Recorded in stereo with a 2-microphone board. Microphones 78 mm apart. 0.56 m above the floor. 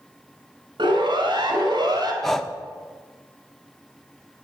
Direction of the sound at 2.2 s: 5° left (ahead or behind).